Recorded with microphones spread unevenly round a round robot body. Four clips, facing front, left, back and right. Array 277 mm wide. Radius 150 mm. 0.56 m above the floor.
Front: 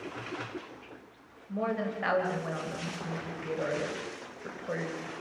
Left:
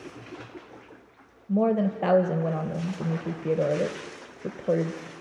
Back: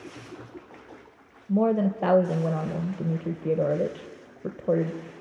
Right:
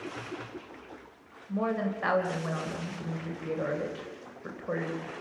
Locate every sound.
1.5 s a woman speaking: 140° left, 2.5 m